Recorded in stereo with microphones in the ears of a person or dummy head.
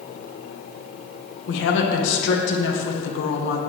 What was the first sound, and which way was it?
A woman speaking, 70° left (ahead or behind).